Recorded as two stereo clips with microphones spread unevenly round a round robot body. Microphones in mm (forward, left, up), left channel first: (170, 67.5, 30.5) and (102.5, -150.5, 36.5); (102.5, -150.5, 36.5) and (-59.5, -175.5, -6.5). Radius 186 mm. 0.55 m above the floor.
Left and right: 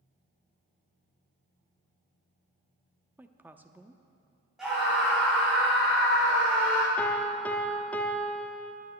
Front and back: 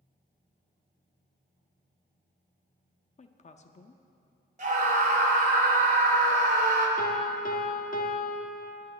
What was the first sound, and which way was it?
A woman speaking, 30° right.